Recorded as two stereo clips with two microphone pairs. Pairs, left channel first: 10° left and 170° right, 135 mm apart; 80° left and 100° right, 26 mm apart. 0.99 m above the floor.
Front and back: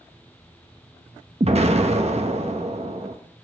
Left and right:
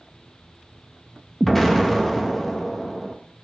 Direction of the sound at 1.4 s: 160° left.